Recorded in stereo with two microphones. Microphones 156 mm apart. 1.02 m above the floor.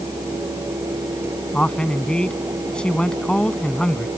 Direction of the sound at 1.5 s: 5° left (ahead or behind).